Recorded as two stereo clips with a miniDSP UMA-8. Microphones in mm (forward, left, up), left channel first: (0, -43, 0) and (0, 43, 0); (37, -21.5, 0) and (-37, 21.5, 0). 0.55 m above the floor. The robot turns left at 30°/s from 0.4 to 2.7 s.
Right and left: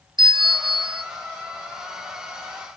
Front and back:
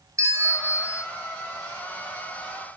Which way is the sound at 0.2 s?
105° left.